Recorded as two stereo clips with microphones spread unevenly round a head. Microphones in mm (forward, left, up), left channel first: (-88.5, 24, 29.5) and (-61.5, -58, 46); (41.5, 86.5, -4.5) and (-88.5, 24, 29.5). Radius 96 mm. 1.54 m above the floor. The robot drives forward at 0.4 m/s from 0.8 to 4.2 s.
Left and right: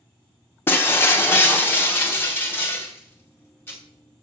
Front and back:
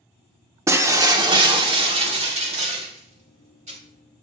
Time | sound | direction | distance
0.7 | breaking glass | 175° left | 0.7 m